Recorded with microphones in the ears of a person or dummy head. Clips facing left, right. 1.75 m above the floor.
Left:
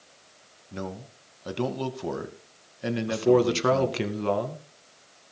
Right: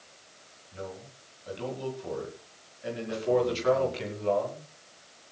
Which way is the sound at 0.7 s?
75° left (ahead or behind).